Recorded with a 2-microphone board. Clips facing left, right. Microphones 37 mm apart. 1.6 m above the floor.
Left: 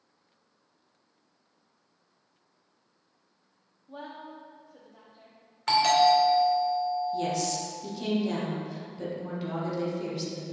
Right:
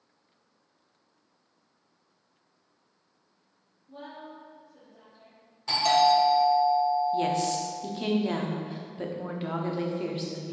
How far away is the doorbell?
About 1.9 m.